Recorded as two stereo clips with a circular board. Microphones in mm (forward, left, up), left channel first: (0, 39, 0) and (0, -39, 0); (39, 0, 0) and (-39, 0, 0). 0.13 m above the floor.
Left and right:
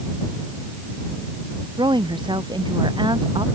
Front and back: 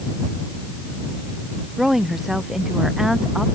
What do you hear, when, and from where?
1.8 s a woman speaking: 95° right